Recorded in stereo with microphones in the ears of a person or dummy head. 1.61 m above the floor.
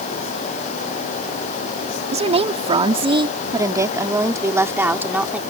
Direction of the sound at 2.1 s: 35° right (ahead or behind).